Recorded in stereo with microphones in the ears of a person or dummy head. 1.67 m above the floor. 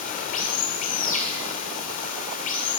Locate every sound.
0.0 s running water: 45° left (ahead or behind), 2.5 m